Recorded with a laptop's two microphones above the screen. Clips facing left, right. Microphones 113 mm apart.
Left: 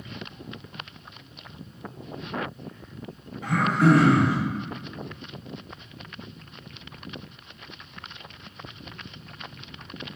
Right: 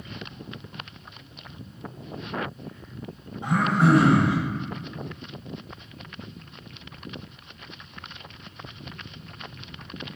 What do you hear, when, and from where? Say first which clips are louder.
3.4 s throat clearing: even; 25° right (ahead or behind), 2.5 m